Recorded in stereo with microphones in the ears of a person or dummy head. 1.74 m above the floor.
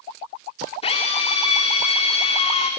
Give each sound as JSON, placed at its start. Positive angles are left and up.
{"t": 0.8, "sound": "a drill", "side_deg": 35, "distance_m": 2.5}